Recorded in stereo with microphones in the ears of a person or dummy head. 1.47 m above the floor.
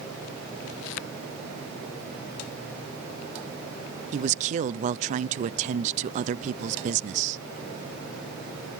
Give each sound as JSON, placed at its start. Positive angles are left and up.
{"t": 4.1, "sound": "a man speaking", "side_deg": -40, "distance_m": 0.6}